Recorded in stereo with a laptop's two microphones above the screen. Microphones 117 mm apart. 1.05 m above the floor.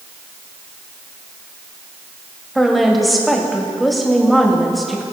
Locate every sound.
2.5 s a woman speaking: centre (ahead or behind), 2 m